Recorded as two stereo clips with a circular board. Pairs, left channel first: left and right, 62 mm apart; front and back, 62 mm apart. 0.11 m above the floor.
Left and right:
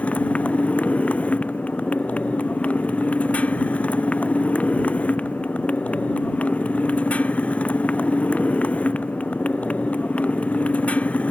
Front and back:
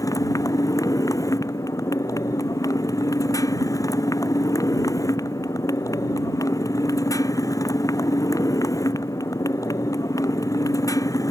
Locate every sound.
0.0 s a motorcycle: 20° left